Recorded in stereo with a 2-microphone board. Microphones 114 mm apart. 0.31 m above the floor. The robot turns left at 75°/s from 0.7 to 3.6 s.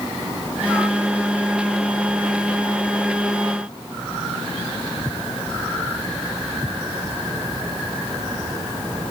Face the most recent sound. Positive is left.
No sound to turn to.